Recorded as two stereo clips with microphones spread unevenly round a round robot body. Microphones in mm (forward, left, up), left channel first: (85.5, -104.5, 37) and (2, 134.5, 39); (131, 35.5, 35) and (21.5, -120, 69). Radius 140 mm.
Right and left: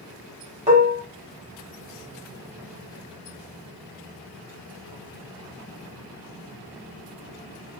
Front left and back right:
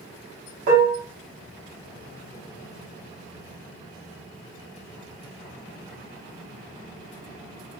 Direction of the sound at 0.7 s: 175° left.